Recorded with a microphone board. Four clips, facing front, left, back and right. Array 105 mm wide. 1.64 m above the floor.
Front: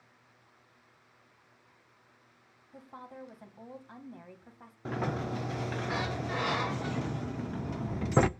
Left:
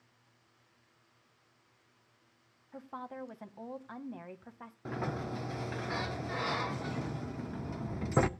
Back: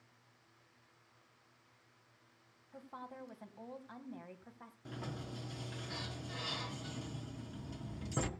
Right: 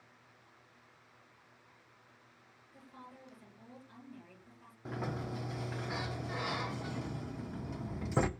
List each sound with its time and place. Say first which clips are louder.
2.7 s a woman speaking: left 11 dB, front 2 dB; 90° left, 1.6 m
4.8 s a sliding door: left 3 dB, front 13 dB; 15° left, 0.7 m